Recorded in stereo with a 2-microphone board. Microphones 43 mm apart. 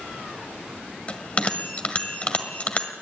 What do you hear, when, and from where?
1.1 s a bell: 30° left (ahead or behind), 1.6 m